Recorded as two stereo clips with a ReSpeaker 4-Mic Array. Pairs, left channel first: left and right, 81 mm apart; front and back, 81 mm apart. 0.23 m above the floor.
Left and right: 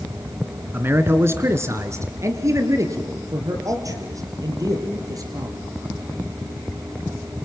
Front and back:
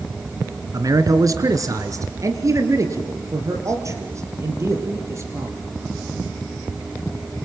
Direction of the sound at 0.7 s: 150° right.